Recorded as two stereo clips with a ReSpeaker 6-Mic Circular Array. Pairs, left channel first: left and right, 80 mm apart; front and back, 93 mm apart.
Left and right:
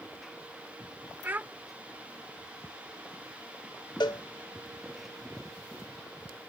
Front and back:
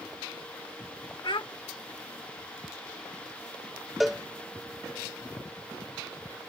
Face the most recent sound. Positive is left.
turn(degrees=95)